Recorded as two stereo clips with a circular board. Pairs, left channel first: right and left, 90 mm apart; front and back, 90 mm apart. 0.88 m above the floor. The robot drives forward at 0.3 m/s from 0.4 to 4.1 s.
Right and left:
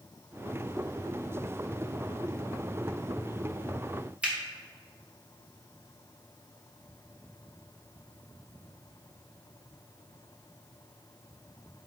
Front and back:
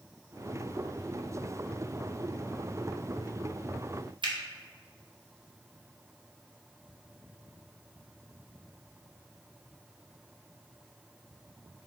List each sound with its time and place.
4.2 s a finger snap: 165° left, 0.8 m